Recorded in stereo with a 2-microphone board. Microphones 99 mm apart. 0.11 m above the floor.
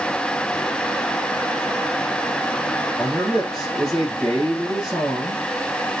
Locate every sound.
3.0 s a man speaking: centre (ahead or behind), 3.5 m